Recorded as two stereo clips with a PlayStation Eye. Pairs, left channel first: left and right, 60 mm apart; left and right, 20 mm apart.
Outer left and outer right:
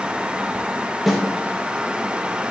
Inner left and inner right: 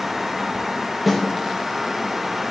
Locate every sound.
1.1 s a snare drum: centre (ahead or behind), 1.2 m